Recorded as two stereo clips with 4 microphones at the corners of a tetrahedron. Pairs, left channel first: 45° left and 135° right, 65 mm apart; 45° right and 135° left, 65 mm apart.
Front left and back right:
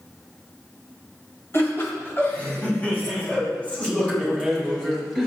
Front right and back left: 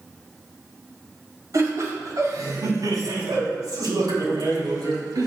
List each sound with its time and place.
1.5 s laughter: 95° left, 5 m; by 5.3 s 125° left, 8 m